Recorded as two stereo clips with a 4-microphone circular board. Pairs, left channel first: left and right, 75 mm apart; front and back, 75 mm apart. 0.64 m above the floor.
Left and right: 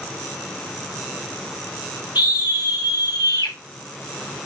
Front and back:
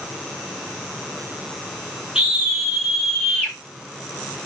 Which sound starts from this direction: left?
A scream, at 2.1 s.